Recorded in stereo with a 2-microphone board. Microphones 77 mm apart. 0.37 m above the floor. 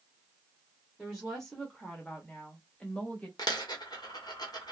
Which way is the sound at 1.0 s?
Centre (ahead or behind).